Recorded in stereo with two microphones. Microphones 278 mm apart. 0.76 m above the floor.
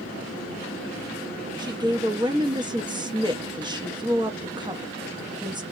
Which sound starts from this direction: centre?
A woman speaking, at 1.6 s.